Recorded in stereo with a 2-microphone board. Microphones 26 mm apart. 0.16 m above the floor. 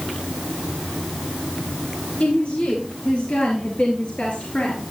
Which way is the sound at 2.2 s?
60° left (ahead or behind).